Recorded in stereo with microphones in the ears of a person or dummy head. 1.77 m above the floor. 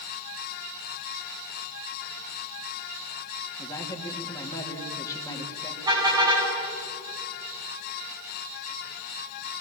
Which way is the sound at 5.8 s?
15° right (ahead or behind).